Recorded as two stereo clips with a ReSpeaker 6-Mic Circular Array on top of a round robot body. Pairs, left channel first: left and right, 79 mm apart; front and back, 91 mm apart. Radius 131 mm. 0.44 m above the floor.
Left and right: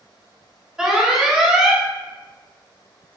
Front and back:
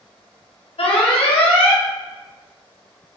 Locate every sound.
0.8 s an alarm: 10° right, 1.7 m